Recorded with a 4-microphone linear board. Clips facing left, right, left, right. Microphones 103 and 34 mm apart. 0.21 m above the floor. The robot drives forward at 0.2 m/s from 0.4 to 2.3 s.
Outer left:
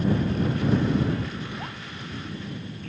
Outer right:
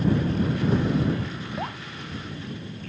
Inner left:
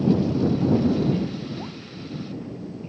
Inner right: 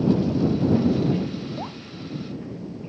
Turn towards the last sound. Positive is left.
turn(degrees=-30)  # may be behind; listen again after turning